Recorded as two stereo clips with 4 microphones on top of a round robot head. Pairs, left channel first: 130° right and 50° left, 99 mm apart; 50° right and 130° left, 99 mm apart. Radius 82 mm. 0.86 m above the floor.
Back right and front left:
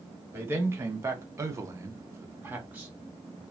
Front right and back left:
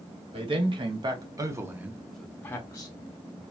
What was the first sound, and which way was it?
A man speaking, 110° left.